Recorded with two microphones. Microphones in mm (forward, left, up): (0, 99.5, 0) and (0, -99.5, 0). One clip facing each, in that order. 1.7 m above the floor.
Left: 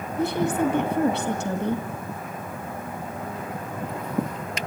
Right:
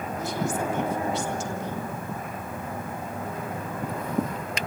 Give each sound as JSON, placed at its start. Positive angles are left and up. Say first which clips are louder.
{"t": 0.2, "sound": "a woman speaking", "louder": "left 7 dB", "side_deg": 65, "distance_m": 2.0}